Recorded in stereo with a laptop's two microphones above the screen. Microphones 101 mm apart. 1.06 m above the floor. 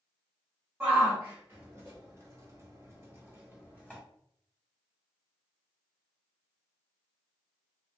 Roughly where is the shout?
Right.